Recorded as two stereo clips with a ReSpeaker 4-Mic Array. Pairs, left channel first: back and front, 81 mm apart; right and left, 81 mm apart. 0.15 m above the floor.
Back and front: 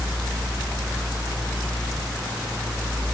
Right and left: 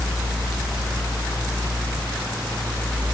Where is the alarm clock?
I don't hear an alarm clock.